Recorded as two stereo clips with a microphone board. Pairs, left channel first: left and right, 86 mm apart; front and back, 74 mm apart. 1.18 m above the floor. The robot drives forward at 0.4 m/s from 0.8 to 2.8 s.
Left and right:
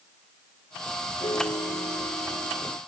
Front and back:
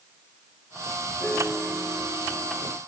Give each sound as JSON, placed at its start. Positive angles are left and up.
{"t": 1.2, "sound": "a piano", "azimuth_deg": 75}